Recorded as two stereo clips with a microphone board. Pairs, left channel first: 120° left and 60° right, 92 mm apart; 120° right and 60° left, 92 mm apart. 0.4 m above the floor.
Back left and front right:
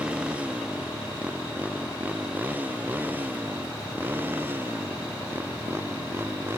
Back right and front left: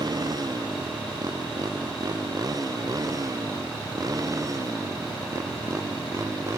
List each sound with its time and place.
0.0 s a motorcycle: 20° left; by 6.6 s 5° left